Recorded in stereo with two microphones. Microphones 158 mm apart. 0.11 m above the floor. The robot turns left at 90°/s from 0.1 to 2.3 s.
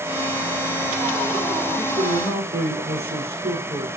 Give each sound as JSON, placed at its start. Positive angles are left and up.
{"t": 1.8, "sound": "a man speaking", "azimuth_deg": -35, "distance_m": 7.5}